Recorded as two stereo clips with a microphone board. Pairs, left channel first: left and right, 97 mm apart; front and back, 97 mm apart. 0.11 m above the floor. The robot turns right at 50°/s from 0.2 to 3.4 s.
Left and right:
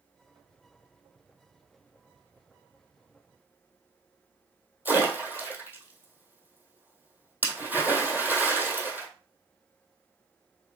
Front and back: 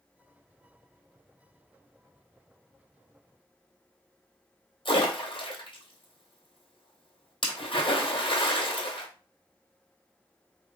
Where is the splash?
20° right, 1.7 m.